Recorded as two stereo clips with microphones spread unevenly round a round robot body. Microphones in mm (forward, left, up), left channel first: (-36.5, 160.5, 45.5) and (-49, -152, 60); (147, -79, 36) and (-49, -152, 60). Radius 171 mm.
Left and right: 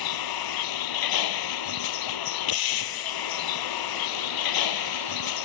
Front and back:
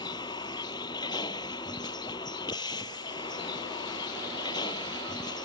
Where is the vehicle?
100° left.